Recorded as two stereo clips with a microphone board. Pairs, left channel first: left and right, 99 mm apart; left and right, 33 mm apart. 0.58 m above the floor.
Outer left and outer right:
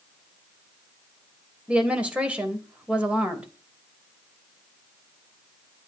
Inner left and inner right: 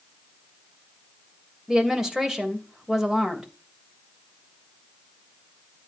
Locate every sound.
1.7 s a woman speaking: 10° right (ahead or behind), 2.5 m